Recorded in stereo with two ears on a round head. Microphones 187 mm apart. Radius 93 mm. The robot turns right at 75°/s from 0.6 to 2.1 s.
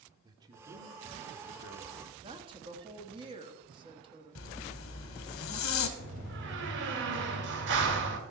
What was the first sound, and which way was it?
A man speaking, 160° right.